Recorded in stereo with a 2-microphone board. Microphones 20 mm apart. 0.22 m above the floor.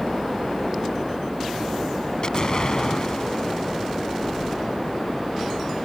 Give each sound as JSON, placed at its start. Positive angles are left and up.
{"t": 2.2, "sound": "an explosion", "side_deg": 45}